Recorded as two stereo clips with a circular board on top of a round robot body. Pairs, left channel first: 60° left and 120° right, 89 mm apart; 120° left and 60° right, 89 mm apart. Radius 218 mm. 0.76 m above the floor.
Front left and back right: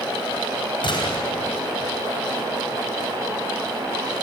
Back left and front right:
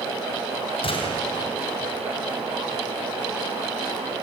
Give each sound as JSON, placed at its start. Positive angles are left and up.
{"t": 0.8, "sound": "a gunshot", "azimuth_deg": 95, "distance_m": 3.5}